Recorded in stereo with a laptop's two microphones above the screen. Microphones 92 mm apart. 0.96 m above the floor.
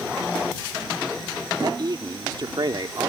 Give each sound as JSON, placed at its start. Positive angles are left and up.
{"t": 1.6, "sound": "a man speaking", "side_deg": -50}